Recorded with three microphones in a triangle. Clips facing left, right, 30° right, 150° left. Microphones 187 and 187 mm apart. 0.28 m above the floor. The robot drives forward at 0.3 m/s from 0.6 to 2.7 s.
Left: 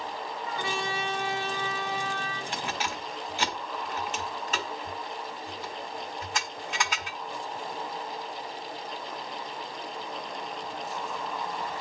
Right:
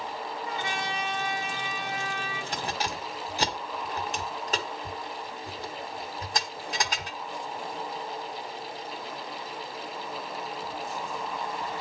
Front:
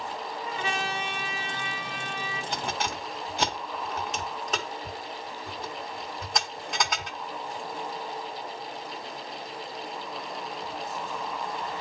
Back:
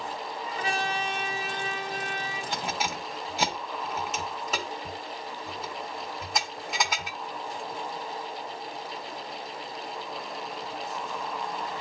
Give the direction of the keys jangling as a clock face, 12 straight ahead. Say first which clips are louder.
Right 2 dB, even; 4 o'clock.